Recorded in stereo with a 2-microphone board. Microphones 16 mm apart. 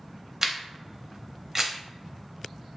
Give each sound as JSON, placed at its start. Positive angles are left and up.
{"t": 0.4, "sound": "a camera shutter", "side_deg": -30, "distance_m": 0.6}